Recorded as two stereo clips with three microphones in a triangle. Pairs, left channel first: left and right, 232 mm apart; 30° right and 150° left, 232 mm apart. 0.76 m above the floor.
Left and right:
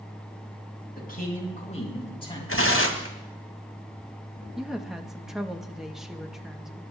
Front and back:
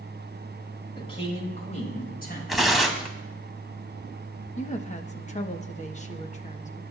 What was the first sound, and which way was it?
A man speaking, 40° left.